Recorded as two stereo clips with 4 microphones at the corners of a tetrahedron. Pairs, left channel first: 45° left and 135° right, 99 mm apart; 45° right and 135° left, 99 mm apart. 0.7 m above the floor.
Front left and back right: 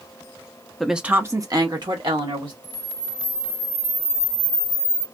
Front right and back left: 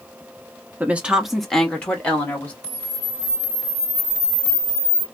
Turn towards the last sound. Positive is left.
turn(degrees=-170)